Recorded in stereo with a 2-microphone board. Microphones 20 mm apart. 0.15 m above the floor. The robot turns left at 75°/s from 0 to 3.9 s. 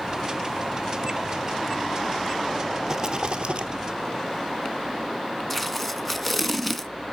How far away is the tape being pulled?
About 0.7 m.